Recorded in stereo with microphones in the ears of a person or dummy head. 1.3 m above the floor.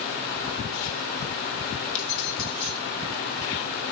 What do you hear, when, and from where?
1.9 s keys jangling: 80° left, 1.9 m